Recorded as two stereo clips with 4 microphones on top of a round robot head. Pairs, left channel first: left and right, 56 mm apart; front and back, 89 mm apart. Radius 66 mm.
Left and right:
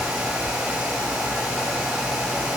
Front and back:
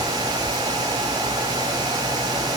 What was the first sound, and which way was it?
Only background noise.